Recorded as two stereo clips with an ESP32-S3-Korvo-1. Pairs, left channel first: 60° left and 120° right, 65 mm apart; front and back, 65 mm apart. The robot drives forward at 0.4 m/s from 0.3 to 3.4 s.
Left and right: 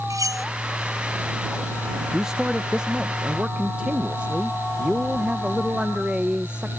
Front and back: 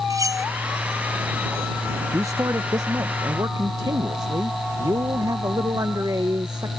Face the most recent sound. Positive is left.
turn(degrees=170)